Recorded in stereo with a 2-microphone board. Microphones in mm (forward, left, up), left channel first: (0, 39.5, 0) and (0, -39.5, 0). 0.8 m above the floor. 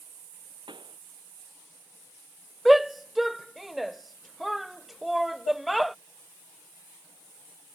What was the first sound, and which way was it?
A pop, 85° right.